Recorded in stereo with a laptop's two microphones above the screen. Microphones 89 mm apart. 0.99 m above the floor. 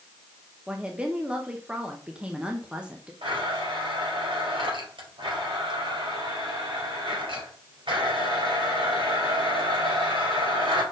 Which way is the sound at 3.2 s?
65° right (ahead or behind).